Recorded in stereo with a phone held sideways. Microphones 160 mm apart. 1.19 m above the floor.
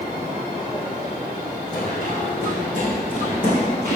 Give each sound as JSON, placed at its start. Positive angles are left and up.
{"t": 1.7, "sound": "running footsteps", "side_deg": 65, "distance_m": 4.0}